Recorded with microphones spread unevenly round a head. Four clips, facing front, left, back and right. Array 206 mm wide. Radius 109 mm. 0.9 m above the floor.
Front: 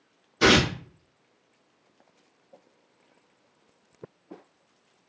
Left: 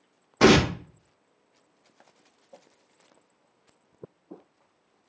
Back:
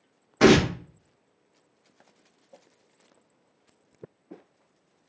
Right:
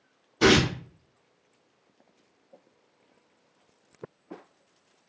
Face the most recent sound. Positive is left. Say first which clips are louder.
# left 3 dB, back 3 dB
turn(degrees=155)